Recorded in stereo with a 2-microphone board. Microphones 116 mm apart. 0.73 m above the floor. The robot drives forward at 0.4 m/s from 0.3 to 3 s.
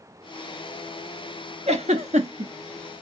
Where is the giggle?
70° right (ahead or behind), 0.8 m; by 2.5 s 85° right, 0.7 m.